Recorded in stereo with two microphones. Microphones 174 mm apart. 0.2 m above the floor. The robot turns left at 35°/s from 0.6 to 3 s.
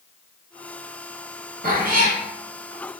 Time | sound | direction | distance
1.6 | a cat meowing | 65° right (ahead or behind) | 1.3 m